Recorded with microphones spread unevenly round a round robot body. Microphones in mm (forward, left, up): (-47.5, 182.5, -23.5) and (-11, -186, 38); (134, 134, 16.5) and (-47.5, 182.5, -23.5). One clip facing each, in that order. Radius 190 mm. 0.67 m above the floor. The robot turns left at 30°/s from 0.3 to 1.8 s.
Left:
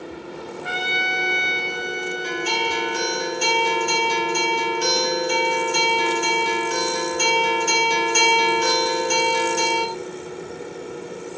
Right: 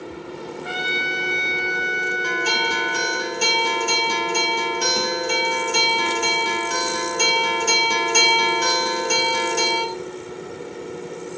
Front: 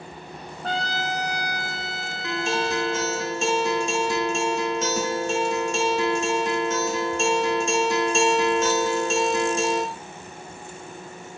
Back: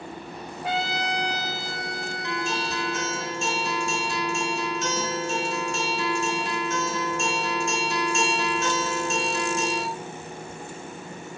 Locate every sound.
0.6 s a trumpet: 90° left, 1.8 m; by 3.2 s 55° left, 1.8 m
2.2 s a guitar: 40° right, 1.6 m